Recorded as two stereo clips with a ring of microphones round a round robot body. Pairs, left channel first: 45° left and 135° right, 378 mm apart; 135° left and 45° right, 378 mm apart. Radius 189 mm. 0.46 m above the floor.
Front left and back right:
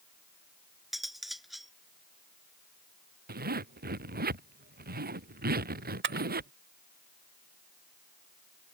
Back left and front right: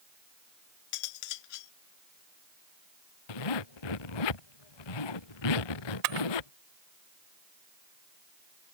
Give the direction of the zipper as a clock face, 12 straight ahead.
7 o'clock.